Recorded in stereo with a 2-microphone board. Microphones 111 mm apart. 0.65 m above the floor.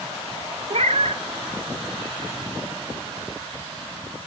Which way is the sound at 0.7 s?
75° right (ahead or behind).